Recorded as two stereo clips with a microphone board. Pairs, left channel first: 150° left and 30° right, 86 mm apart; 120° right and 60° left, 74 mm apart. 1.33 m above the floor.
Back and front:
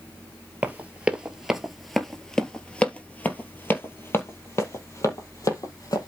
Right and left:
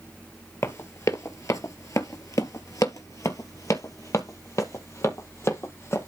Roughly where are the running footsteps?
Right.